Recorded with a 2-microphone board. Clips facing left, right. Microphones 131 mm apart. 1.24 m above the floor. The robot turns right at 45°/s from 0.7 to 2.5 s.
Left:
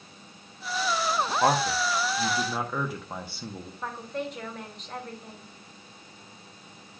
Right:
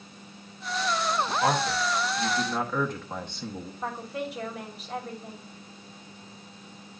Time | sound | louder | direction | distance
1.4 | a man speaking | left 3 dB | 125° left | 1.0 m
3.8 | a woman speaking | even | 5° right (ahead or behind) | 2.5 m